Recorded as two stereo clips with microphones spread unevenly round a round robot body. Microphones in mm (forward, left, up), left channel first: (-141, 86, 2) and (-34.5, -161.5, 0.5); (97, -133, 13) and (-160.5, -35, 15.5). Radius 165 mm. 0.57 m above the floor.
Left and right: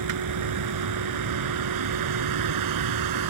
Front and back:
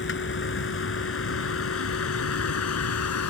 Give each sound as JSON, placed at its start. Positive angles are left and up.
{"t": 0.0, "sound": "a vehicle", "azimuth_deg": -70}